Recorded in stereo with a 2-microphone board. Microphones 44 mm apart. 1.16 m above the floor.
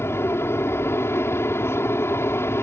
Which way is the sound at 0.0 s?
65° left (ahead or behind).